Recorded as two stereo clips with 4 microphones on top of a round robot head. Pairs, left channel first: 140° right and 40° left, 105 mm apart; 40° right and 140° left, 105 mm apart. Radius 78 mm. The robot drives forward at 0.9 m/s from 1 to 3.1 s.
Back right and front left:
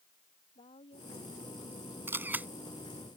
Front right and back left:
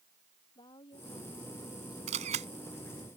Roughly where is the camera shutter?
Left.